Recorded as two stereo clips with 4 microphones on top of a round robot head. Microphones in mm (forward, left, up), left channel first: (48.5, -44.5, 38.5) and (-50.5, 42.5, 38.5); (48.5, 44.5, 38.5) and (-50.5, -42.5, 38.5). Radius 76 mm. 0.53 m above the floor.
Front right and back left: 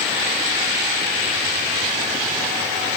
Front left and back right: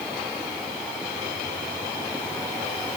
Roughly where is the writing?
I don't hear writing.